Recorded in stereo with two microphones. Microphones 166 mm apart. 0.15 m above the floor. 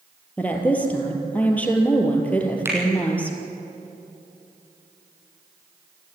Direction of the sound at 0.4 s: 10° left (ahead or behind).